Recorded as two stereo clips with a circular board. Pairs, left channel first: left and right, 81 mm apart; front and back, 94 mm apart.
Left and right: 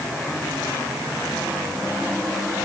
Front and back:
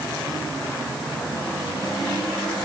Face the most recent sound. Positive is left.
No sound to turn to.